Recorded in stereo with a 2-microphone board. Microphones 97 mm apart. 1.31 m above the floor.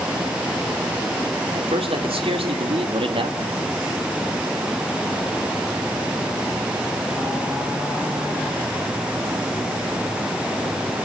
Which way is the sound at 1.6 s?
85° right.